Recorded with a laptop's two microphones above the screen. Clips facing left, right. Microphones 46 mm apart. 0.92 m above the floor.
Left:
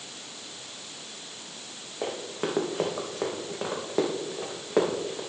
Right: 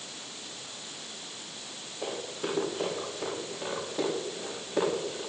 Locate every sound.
2.0 s running footsteps: 50° left (ahead or behind), 3.5 m; by 5.2 s 55° left (ahead or behind), 4 m